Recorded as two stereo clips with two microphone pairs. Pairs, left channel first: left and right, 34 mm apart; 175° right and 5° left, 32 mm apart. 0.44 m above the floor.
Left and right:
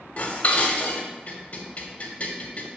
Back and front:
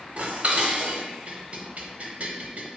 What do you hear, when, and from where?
0.2 s dishes clattering: 45° left, 1.3 m